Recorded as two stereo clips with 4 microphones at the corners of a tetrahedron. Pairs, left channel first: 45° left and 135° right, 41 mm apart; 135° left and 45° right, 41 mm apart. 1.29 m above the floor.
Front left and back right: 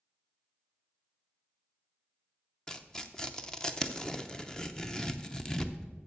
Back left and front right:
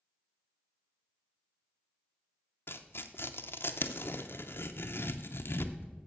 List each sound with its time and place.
2.7 s tearing paper: 120° left, 0.6 m